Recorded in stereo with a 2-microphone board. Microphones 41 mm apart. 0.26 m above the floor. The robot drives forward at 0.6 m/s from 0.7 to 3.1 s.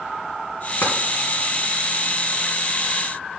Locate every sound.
0.8 s tapping: 60° left (ahead or behind), 2 m